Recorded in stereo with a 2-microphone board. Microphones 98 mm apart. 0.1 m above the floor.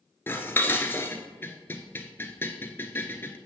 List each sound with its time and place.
0.3 s dishes clattering: 25° left (ahead or behind), 0.9 m